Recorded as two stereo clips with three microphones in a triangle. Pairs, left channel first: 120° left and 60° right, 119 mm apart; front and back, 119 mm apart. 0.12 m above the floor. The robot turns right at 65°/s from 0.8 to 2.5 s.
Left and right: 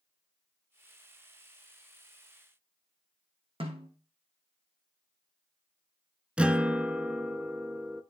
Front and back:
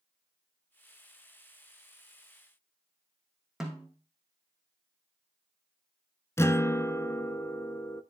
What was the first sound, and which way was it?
A snare drum, 95° right.